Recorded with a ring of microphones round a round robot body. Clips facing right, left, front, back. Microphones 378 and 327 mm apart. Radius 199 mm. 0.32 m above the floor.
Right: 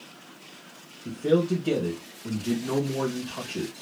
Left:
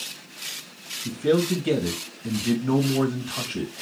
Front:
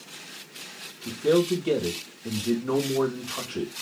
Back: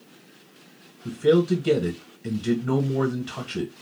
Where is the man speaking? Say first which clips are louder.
Left 1 dB, back 2 dB; 145° left, 1.7 m.